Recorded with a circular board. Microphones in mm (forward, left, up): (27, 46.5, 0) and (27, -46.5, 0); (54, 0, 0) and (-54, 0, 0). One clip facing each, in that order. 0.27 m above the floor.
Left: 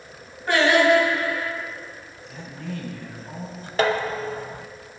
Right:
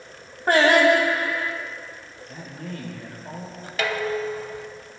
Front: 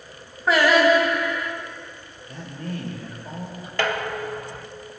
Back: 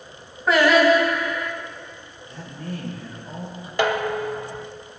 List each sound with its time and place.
0.5 s singing: 90° right, 2 m
2.3 s a man speaking: 40° right, 6.5 m
3.8 s dishes clattering: 115° left, 0.8 m